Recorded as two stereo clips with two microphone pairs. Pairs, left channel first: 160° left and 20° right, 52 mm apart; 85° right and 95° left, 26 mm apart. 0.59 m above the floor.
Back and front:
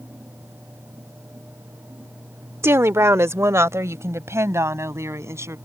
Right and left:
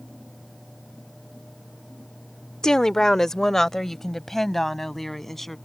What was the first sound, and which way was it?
A woman speaking, 25° right.